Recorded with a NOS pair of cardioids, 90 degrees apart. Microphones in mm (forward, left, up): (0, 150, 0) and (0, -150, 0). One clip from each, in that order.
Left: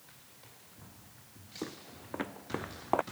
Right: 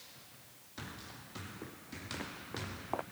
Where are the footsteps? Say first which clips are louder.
Left 4 dB; 55° left.